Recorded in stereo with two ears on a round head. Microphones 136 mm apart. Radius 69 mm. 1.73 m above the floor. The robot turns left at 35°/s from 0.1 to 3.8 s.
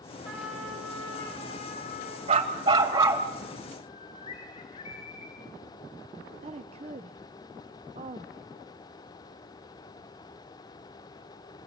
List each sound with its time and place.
0.2 s a trumpet: 175° right, 10 m; by 2.2 s 120° left, 10 m
2.3 s a dog barking: 130° right, 3.5 m; by 3.3 s 165° right, 3.5 m
3.8 s a bird: 35° left (ahead or behind), 5 m
6.4 s a woman speaking: 40° right (ahead or behind), 0.8 m